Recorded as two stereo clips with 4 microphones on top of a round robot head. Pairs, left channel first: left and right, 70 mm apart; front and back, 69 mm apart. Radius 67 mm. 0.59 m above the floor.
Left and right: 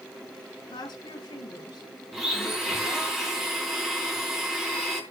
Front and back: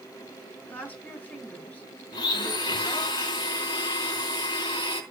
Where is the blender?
5° right, 4 m.